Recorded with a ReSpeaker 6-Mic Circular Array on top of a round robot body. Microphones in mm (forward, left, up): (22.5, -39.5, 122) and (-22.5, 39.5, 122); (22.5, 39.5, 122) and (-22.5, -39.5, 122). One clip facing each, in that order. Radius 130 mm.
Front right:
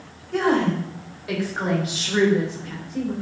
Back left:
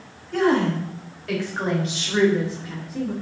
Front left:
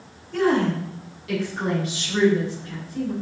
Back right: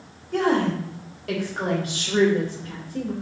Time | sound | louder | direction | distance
0.3 | a woman speaking | back left 1 dB, front left 1 dB | 140° right | 3.5 m